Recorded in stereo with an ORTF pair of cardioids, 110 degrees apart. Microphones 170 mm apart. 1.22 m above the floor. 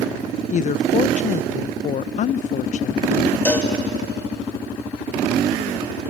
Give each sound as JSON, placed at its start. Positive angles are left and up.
{"t": 0.5, "sound": "a woman speaking", "azimuth_deg": 45, "distance_m": 0.6}
{"t": 3.5, "sound": "a cowbell", "azimuth_deg": 10, "distance_m": 3.0}